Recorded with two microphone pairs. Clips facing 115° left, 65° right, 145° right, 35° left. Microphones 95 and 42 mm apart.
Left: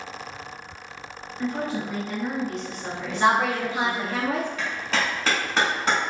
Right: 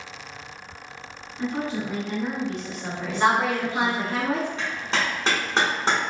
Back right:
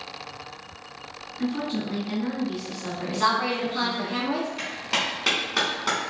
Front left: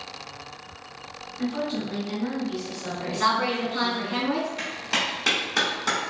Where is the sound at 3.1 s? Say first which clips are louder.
Even, even; 60° right, 1.5 m.